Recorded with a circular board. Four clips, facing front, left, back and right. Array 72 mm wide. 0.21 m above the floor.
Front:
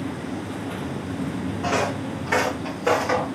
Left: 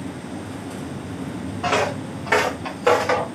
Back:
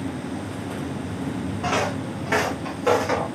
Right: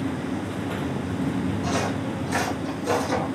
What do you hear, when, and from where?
1.6 s footsteps: 100° left, 5 m; by 3.2 s 90° left, 5.5 m